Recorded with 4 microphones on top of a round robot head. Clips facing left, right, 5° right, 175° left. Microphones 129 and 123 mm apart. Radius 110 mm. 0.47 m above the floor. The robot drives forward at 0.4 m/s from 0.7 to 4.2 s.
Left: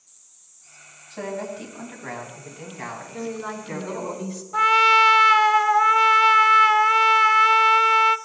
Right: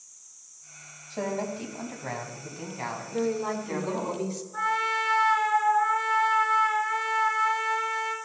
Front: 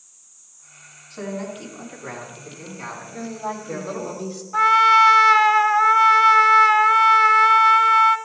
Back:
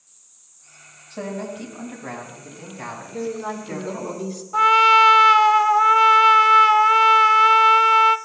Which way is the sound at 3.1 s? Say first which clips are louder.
Right 4 dB, back 2 dB; 135° right.